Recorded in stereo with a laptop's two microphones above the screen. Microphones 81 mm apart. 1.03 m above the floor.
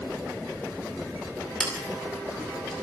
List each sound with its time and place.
1.6 s scissors: 5° left (ahead or behind), 2.5 m